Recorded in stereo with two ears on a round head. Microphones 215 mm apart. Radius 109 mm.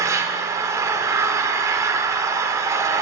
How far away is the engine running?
About 0.7 m.